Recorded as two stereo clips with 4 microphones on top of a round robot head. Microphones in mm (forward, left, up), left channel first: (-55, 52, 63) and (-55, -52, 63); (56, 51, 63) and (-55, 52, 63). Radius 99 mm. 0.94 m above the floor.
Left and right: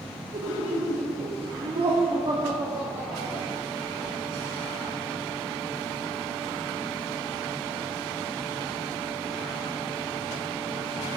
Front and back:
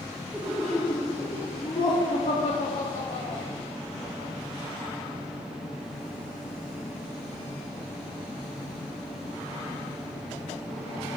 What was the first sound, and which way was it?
Laughter, 90° right.